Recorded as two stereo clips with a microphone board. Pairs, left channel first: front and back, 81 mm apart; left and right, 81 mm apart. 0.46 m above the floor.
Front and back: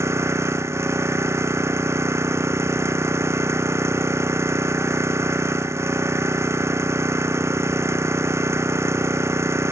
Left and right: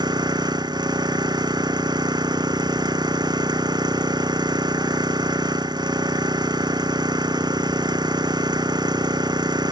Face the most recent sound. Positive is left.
turn(degrees=-125)